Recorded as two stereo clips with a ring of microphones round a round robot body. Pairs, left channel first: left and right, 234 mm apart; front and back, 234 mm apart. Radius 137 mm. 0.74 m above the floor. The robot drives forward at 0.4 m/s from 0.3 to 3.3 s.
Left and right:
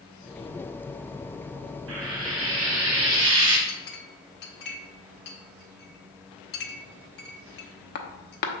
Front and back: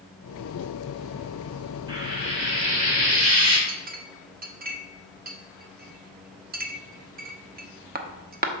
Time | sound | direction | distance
1.9 | frying | 110° right | 1.8 m
3.7 | a clink | 130° left | 0.8 m